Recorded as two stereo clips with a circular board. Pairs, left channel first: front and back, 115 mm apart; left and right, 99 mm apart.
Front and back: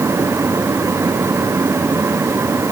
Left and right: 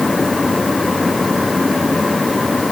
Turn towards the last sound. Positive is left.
No sound to turn to.